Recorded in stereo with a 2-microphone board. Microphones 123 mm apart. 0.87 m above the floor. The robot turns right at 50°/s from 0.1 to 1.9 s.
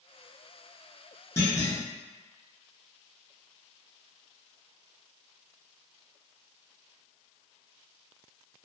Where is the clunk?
25° left (ahead or behind), 0.8 m; by 1.8 s 35° left (ahead or behind), 0.8 m.